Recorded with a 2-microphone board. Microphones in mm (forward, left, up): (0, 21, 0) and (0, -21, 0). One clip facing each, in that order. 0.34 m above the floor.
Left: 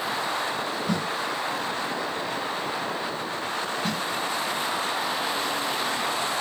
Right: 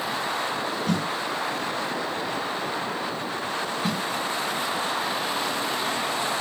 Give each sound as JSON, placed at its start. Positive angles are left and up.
{"t": 0.9, "sound": "a snare drum", "side_deg": -60, "distance_m": 5.0}
{"t": 3.8, "sound": "a snare drum", "side_deg": -5, "distance_m": 1.3}